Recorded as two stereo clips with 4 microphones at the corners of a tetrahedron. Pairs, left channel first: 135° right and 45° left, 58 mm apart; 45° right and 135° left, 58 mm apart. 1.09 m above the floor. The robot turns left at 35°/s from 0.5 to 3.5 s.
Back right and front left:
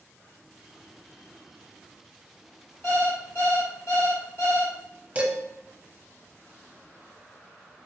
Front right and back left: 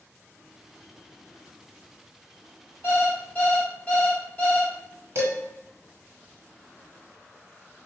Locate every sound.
2.8 s an alarm clock: 90° right, 1.7 m; by 4.7 s 110° right, 1.7 m
5.2 s dishes clattering: 105° left, 1.4 m